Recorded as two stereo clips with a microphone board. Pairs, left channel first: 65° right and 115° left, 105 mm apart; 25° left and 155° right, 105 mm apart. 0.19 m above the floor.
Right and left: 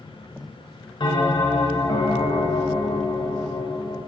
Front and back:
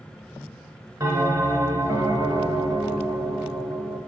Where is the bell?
105° right, 0.6 m.